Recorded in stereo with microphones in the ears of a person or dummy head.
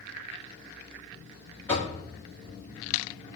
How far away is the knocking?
About 2 m.